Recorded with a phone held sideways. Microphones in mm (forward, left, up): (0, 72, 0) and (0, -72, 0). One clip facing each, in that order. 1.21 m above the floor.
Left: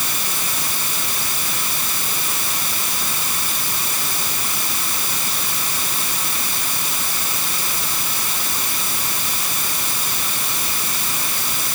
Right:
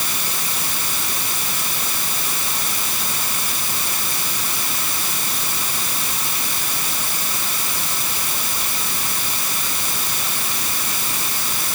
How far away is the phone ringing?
I don't hear a phone ringing.